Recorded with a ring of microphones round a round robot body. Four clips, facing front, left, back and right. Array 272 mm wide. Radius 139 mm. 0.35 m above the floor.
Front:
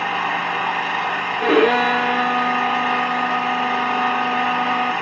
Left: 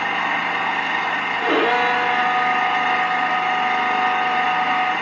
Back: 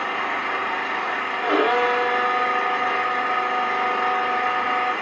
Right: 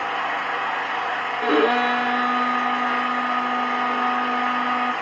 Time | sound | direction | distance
0.0 | an engine running | 35° left | 1.0 m
1.4 | a violin | straight ahead | 1.1 m